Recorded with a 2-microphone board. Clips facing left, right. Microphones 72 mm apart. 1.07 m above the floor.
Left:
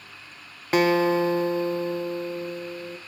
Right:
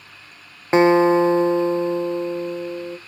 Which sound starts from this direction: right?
A guitar, at 0.7 s.